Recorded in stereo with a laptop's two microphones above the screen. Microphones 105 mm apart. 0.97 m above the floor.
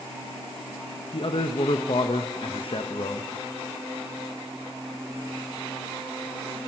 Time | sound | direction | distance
1.1 | a man speaking | 60° left (ahead or behind) | 0.6 m